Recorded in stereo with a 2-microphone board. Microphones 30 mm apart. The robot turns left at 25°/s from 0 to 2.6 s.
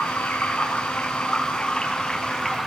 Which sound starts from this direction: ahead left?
Running water, at 0.0 s.